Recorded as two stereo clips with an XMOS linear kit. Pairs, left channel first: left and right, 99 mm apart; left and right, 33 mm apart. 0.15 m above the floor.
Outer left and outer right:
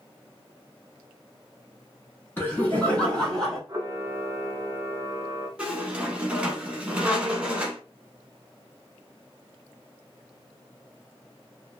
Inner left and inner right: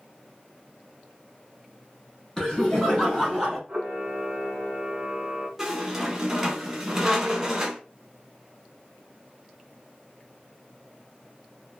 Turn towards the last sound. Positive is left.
turn(degrees=-10)  # may be behind; listen again after turning